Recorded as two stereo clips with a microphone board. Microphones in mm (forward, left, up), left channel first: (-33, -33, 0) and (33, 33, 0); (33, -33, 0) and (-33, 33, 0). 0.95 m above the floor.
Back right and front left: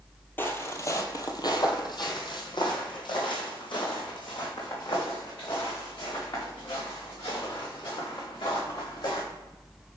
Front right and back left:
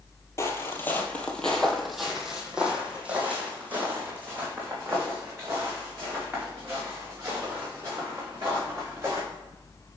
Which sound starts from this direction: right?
Footsteps, at 0.4 s.